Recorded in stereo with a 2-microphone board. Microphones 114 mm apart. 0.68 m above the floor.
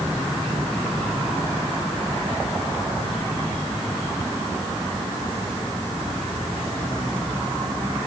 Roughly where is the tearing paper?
I don't hear tearing paper.